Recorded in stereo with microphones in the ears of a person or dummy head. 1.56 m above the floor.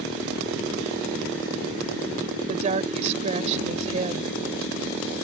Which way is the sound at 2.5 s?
35° right (ahead or behind).